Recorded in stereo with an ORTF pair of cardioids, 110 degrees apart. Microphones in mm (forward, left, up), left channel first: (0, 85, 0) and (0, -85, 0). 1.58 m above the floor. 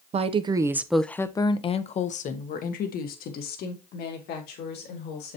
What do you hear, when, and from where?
0.1 s a woman speaking: 40° right, 0.8 m; by 5.4 s 75° left, 2.5 m